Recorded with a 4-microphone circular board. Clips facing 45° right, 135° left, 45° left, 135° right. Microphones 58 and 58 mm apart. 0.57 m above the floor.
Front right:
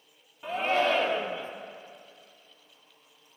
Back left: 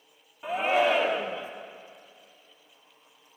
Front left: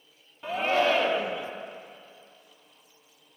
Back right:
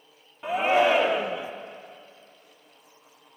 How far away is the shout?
About 0.6 m.